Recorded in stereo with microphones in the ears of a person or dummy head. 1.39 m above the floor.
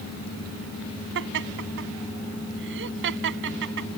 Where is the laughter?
60° right (ahead or behind).